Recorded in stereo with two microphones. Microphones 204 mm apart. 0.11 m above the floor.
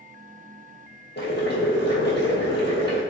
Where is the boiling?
60° left (ahead or behind), 1.0 m.